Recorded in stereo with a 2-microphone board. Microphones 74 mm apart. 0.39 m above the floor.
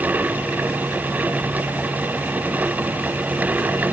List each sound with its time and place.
Only background noise.